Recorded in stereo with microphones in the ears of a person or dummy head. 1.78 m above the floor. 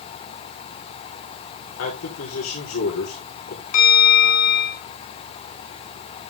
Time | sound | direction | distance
1.8 | a man speaking | 75° left (ahead or behind) | 5 m
3.7 | a bell | 60° left (ahead or behind) | 4 m